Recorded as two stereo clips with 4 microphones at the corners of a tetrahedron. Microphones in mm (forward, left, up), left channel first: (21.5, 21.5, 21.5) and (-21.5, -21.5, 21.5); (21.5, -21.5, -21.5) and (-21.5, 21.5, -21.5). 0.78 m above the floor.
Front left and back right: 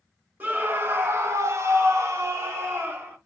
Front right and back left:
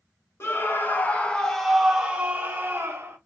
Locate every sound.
0.4 s a scream: 80° right, 1.1 m; by 3.2 s straight behind, 1.3 m